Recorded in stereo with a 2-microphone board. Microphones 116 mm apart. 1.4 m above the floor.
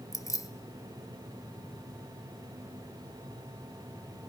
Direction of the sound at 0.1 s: 30° left (ahead or behind).